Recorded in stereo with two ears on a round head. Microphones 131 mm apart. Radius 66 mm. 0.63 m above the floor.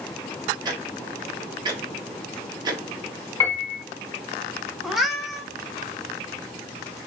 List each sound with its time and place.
0.7 s ticking: 30° right (ahead or behind), 0.8 m
3.4 s a piano: 15° left (ahead or behind), 2 m
4.8 s a cat meowing: centre (ahead or behind), 0.7 m